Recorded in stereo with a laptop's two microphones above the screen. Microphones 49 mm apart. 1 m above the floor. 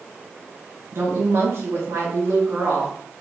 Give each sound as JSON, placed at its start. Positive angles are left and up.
{"t": 0.9, "sound": "a woman speaking", "side_deg": -60, "distance_m": 1.0}